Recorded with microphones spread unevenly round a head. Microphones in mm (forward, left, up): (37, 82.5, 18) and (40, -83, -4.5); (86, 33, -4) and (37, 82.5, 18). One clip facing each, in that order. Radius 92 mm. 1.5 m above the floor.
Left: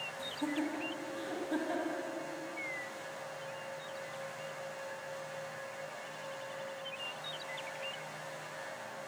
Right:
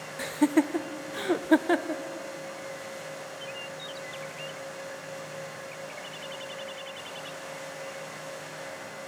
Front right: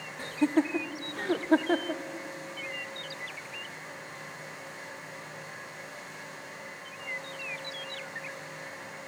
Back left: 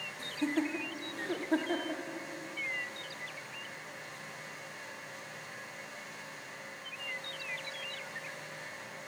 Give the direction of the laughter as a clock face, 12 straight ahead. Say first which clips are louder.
Right 13 dB, front right 7 dB; 4 o'clock.